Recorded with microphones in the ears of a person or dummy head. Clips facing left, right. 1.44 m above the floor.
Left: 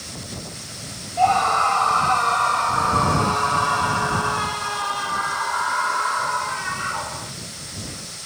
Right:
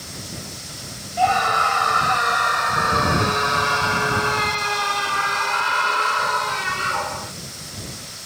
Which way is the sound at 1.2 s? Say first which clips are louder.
Left 1 dB; 15° right (ahead or behind).